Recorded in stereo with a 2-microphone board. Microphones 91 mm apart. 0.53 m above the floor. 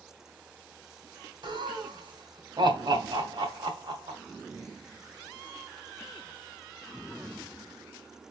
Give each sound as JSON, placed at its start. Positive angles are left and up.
{"t": 1.4, "sound": "laughter", "side_deg": -60, "distance_m": 2.0}